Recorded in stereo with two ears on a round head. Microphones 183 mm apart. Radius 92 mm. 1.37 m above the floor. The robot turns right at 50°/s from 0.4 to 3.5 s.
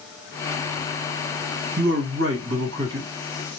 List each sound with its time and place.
1.8 s a man speaking: 130° right, 1.4 m; by 3.1 s 65° right, 1.4 m